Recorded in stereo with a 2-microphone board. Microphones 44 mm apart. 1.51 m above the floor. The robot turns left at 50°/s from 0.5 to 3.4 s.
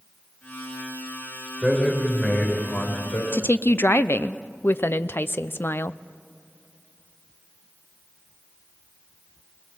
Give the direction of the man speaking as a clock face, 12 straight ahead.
6 o'clock.